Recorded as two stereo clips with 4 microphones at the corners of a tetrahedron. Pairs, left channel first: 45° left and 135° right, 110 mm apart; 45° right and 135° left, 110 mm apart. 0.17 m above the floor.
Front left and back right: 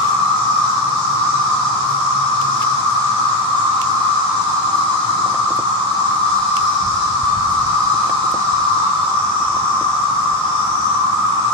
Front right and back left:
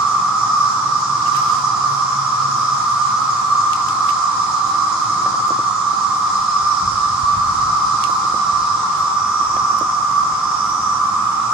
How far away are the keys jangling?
No keys jangling in this recording.